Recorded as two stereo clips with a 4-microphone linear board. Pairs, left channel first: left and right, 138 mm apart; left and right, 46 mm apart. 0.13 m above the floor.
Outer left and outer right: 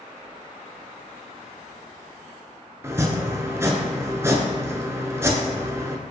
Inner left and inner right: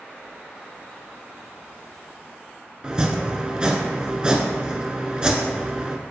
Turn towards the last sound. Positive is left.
turn(degrees=-20)  # may be behind; listen again after turning